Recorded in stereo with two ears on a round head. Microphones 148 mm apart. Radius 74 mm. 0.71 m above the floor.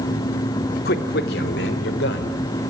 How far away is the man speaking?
About 2 m.